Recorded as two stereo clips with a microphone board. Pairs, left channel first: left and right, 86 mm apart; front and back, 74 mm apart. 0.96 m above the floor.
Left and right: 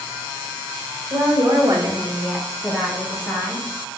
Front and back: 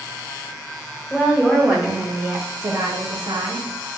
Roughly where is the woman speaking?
Right.